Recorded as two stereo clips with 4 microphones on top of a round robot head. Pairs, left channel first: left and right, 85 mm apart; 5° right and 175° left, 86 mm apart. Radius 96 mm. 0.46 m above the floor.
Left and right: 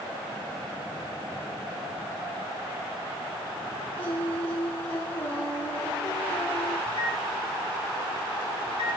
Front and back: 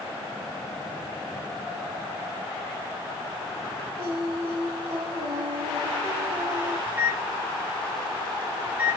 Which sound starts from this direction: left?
A microwave, at 6.9 s.